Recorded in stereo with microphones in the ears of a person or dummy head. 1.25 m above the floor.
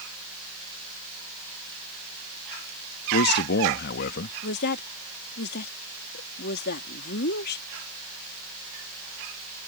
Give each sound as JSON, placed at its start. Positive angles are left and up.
{"t": 3.1, "sound": "a man speaking", "side_deg": 55}
{"t": 4.4, "sound": "a woman speaking", "side_deg": 60}